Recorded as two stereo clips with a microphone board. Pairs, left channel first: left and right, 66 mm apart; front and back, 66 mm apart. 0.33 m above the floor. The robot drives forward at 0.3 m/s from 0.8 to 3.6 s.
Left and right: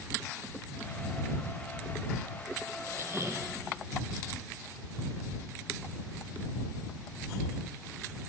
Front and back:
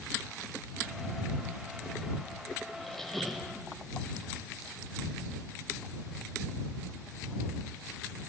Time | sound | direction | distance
2.8 | a squeak | 80° right | 1.1 m